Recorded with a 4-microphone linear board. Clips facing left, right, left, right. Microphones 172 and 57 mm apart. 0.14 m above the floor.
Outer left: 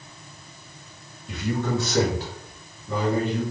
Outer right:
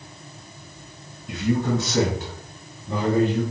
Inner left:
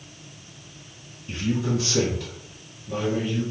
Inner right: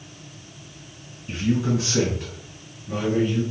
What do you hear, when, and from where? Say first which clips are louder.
1.3 s a man speaking: outer right 4 dB, inner right 3 dB; 20° right (ahead or behind), 1.7 m; by 3.4 s 25° right (ahead or behind), 2 m